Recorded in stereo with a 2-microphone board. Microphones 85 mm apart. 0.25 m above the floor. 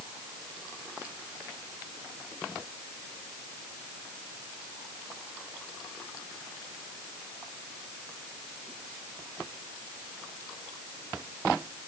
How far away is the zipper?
I don't hear a zipper.